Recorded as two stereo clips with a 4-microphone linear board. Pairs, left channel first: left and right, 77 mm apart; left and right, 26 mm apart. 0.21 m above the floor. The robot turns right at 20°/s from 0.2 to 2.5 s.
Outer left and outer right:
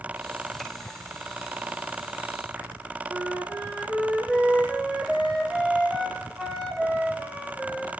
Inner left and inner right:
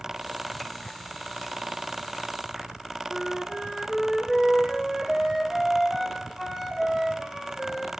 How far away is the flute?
About 3.5 m.